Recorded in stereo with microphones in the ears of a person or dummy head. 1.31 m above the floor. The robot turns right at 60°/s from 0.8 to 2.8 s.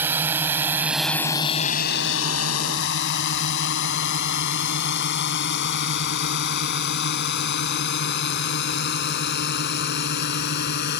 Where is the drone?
10° right (ahead or behind); by 11.0 s 55° left (ahead or behind).